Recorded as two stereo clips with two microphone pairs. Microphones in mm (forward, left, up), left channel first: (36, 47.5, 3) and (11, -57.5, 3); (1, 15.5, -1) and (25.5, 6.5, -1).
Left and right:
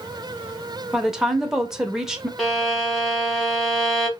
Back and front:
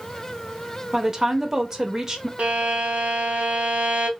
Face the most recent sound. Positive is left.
turn(degrees=-15)